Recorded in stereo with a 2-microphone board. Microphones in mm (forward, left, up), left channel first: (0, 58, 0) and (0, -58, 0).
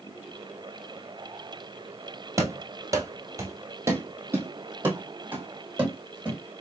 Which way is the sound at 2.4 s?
25° right (ahead or behind).